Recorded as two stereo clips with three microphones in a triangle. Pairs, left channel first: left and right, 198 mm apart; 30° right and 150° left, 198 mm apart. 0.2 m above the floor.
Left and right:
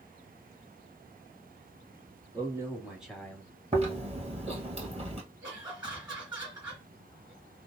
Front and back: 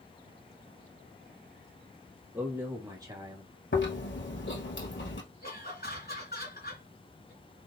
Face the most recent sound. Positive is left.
turn(degrees=-25)